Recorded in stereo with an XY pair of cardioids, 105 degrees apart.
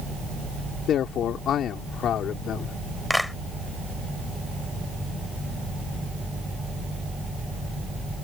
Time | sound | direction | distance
0.9 | a man speaking | 70° left | ?
3.1 | a clap | 5° left | ?